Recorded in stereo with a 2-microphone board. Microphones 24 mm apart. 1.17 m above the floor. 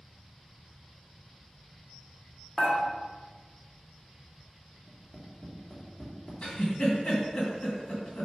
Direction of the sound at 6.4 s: 35° left (ahead or behind).